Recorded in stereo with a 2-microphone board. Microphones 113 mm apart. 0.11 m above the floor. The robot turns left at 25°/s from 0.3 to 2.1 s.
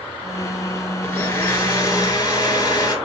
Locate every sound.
1.0 s a blender: 15° left (ahead or behind), 2 m; by 3.0 s 30° left (ahead or behind), 2 m